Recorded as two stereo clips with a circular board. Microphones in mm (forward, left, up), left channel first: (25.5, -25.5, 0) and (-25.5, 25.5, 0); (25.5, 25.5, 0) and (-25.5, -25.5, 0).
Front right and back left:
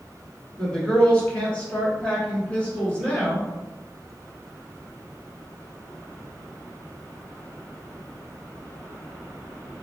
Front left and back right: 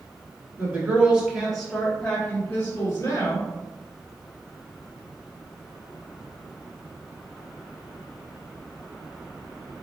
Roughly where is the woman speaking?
Right.